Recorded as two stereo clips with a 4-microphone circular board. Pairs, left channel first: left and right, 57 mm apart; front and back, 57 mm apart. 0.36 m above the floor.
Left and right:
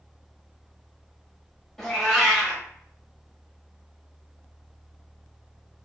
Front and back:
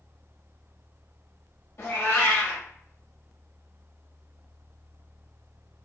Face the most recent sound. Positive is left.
turn(degrees=10)